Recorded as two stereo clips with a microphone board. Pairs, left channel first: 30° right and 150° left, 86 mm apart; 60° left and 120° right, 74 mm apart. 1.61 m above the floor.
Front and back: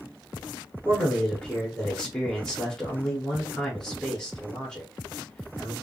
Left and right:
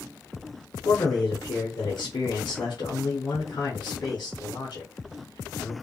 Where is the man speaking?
50° left, 1.1 m.